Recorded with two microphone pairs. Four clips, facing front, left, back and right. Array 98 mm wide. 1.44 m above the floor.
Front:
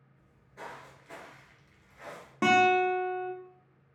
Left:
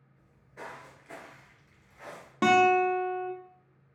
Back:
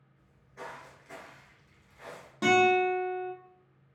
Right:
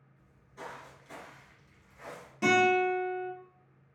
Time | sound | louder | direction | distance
0.2 | footsteps | left 1 dB, back 1 dB | 100° left | 1.8 m
2.4 | a guitar | left 3 dB, even | 60° left | 0.8 m